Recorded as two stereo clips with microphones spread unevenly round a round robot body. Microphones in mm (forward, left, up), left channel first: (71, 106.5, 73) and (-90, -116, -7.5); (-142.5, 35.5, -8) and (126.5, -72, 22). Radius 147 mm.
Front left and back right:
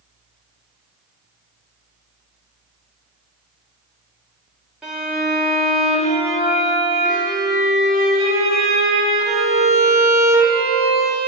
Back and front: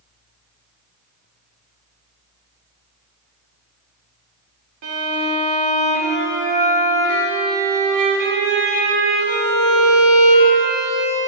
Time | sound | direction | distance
4.8 | a violin | 45° right | 1.7 m